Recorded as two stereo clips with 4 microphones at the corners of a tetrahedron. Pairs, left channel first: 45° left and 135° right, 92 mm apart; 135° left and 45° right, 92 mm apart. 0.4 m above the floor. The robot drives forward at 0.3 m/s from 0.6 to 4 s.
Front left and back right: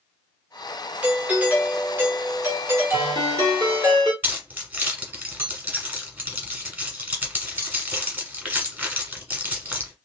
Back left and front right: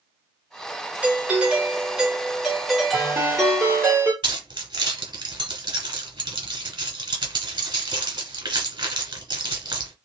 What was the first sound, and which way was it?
A doorbell, 85° right.